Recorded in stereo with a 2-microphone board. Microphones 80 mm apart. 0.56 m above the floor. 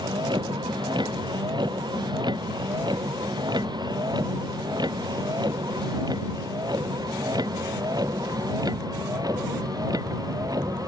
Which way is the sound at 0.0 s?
70° right (ahead or behind).